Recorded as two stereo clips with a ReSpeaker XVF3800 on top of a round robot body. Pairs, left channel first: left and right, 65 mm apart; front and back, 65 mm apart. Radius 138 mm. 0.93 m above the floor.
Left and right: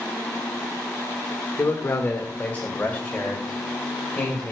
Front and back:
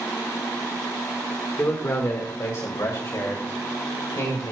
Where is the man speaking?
50° left, 1.5 m; by 4.5 s 10° left, 4.5 m.